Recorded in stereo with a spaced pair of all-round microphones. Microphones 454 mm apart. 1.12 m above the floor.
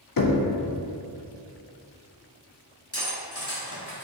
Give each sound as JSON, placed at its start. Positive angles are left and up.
{"t": 0.2, "sound": "knocking", "side_deg": 50, "distance_m": 0.5}
{"t": 2.9, "sound": "cutlery clinking", "side_deg": 30, "distance_m": 1.2}